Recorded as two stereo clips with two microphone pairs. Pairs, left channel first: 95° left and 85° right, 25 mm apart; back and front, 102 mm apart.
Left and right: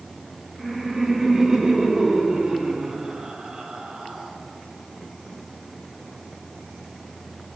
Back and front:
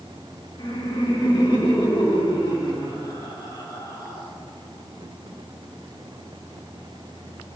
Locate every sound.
0.6 s laughter: 165° right, 1.6 m; by 4.3 s 135° right, 3.5 m